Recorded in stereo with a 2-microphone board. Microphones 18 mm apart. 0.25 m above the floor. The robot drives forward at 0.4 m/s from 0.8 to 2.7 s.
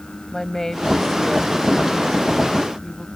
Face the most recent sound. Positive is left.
turn(degrees=20)  # may be behind; listen again after turning